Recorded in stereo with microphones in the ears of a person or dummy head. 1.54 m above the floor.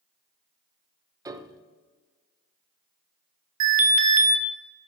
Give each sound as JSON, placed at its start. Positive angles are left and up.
{"t": 1.2, "sound": "a piano", "side_deg": -15, "distance_m": 0.5}
{"t": 3.6, "sound": "an alarm", "side_deg": -45, "distance_m": 1.2}